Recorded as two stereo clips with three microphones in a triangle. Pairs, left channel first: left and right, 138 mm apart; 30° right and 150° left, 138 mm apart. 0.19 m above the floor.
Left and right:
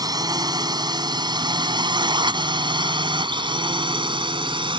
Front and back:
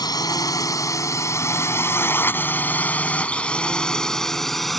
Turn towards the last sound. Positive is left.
turn(degrees=-120)